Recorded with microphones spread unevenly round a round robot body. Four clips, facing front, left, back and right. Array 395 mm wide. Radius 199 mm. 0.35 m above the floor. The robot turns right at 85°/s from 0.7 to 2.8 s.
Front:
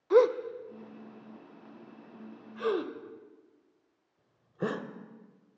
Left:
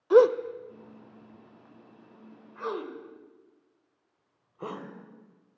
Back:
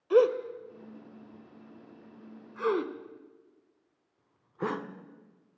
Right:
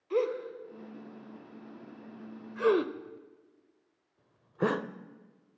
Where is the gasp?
95° left, 1.4 m; by 4.9 s 90° right, 1.4 m.